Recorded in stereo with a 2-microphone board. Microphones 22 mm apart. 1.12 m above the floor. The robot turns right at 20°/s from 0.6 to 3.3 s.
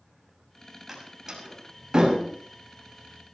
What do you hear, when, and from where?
0.9 s a door slam: 15° right (ahead or behind), 6.5 m; by 2.2 s 40° right (ahead or behind), 6.5 m